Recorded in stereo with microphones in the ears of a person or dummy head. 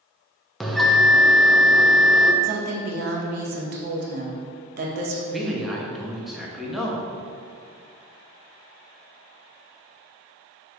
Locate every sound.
0.6 s a bell: centre (ahead or behind), 1.0 m
2.4 s a woman speaking: 55° right (ahead or behind), 2.0 m
5.3 s a man speaking: centre (ahead or behind), 1.6 m